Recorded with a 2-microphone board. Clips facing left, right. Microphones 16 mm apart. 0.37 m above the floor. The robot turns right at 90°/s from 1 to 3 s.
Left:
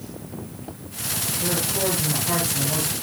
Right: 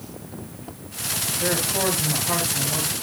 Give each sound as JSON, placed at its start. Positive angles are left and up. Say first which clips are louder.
{"t": 1.4, "sound": "a man speaking", "louder": "right 2 dB", "azimuth_deg": -85, "distance_m": 6.5}